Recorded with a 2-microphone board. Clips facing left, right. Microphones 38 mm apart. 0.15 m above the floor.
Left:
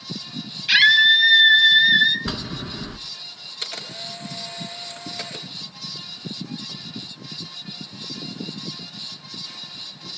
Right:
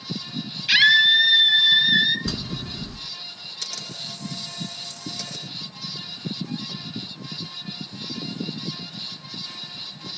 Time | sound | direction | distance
0.7 | a scream | centre (ahead or behind) | 4.5 m
2.3 | a bell | 35° left (ahead or behind) | 1.1 m
3.6 | a camera shutter | 35° left (ahead or behind) | 3 m